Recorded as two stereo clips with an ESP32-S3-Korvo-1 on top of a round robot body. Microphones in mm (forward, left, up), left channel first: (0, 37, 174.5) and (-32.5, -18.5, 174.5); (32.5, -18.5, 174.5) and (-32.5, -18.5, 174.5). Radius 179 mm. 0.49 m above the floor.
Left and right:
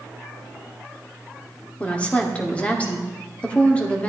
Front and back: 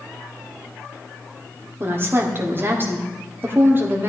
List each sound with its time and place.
1.8 s a woman speaking: 130° left, 1.7 m